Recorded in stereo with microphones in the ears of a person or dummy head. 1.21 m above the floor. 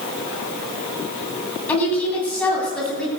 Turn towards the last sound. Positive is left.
turn(degrees=0)  # may be behind; listen again after turning